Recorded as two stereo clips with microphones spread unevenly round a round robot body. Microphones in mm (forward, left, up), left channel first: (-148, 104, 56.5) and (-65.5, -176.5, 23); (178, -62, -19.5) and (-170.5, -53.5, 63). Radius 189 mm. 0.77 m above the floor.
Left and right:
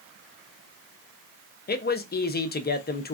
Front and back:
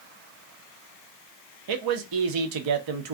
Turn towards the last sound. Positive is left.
turn(degrees=160)